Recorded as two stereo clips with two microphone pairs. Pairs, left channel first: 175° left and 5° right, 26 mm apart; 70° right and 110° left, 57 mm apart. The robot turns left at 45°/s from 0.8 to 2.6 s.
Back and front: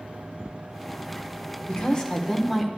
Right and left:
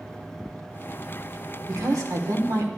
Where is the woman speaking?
130° left, 1.2 m; by 2.7 s 85° left, 1.2 m.